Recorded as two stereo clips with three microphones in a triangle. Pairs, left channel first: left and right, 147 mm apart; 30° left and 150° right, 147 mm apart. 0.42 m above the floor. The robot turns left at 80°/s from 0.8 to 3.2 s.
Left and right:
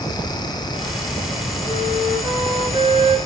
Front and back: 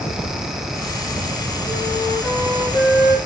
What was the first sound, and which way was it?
A flute, 145° left.